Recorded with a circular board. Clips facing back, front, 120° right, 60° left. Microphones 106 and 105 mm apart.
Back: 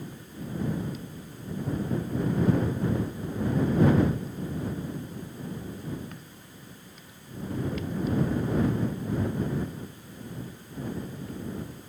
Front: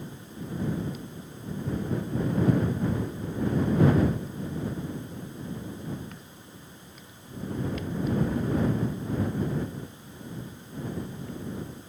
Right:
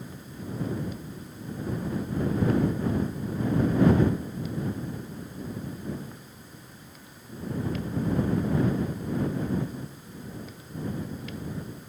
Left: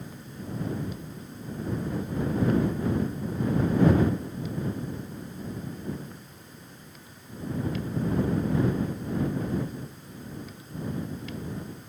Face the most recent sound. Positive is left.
No sound to turn to.